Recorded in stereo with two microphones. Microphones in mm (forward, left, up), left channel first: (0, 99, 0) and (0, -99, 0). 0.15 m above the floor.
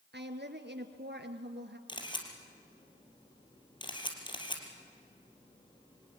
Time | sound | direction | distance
0.1 | a woman speaking | 60° right (ahead or behind) | 2 m
1.9 | a camera shutter | 25° left (ahead or behind) | 3 m